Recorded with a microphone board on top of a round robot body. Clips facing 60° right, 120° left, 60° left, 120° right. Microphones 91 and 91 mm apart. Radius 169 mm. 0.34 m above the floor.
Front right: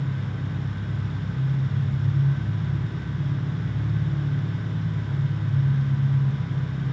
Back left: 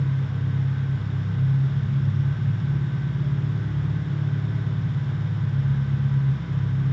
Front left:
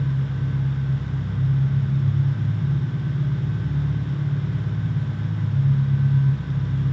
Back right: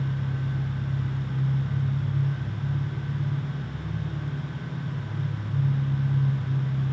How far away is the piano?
I don't hear a piano.